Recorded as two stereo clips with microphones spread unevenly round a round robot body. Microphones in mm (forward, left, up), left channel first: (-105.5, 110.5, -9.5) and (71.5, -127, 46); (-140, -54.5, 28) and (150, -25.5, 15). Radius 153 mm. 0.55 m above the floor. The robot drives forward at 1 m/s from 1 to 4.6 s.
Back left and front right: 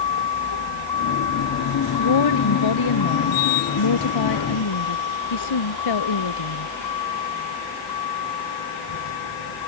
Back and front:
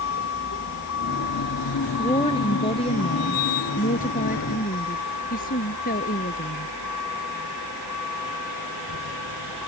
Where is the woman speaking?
110° left; by 6.7 s 120° left.